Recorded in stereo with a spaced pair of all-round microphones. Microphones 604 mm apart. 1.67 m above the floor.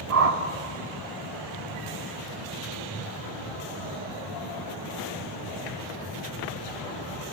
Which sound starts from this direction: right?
A whoosh, at 0.1 s.